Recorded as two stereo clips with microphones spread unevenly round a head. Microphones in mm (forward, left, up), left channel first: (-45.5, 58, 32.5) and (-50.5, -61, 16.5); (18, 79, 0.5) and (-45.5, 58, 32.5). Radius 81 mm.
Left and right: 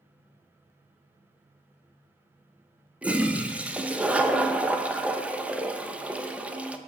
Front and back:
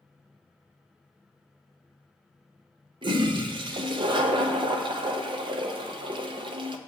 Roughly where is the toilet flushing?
Behind.